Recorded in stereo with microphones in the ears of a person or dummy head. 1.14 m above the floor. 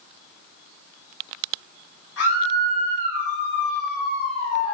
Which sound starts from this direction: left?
A scream, at 2.2 s.